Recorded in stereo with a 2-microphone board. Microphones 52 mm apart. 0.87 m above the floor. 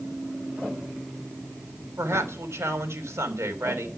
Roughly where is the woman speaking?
Right.